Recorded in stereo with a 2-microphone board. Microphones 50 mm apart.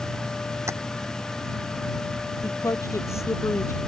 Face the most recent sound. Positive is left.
turn(degrees=65)  # may be behind; listen again after turning